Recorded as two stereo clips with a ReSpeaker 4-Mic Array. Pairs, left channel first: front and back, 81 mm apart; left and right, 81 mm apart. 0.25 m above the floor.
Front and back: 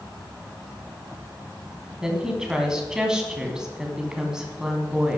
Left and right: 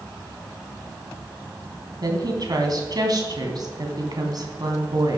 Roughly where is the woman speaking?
Right.